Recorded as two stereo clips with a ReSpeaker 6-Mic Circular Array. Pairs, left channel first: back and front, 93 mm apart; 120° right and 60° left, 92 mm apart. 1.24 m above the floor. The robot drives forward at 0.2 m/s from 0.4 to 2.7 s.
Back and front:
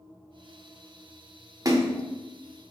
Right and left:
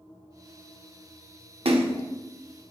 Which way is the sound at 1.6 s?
55° left.